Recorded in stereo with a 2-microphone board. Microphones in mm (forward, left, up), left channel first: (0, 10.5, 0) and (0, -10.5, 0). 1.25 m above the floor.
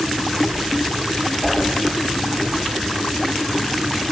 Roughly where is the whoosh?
Centre.